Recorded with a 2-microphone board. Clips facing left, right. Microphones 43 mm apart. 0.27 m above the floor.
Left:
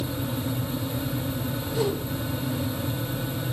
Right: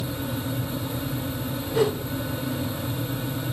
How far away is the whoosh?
About 1.7 m.